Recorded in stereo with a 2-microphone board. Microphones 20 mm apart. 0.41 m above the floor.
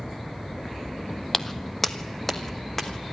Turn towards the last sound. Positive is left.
turn(degrees=10)  # may be behind; listen again after turning